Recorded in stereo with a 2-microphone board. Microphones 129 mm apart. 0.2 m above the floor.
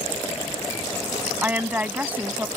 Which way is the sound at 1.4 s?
15° right (ahead or behind).